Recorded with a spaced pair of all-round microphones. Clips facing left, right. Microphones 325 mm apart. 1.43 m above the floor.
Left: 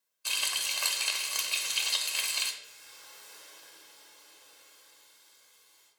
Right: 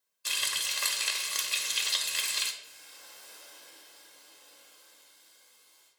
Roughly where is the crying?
No crying in this recording.